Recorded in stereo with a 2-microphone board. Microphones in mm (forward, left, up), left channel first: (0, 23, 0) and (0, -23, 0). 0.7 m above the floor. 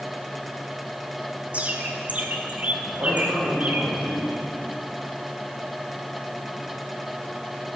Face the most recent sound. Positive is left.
turn(degrees=-65)  # may be behind; listen again after turning